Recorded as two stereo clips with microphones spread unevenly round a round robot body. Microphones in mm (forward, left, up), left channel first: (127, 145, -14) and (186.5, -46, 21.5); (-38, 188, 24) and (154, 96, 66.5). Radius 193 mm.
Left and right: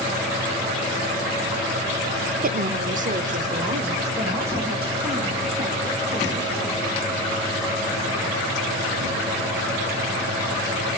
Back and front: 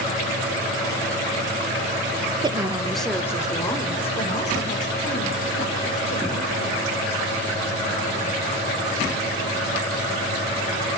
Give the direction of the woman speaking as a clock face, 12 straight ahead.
3 o'clock.